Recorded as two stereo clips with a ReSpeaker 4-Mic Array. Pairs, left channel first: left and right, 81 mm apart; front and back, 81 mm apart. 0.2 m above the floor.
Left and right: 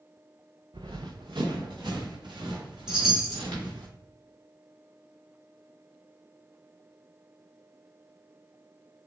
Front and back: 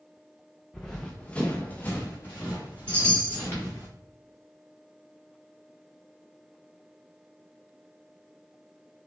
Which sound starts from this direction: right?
Running footsteps, at 0.7 s.